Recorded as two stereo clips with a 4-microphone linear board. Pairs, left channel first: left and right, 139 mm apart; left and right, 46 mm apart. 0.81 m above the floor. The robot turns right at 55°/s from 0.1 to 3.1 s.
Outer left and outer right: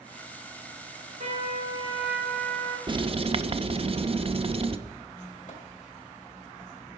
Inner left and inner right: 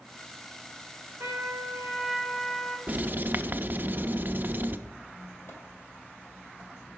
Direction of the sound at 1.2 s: 65° right.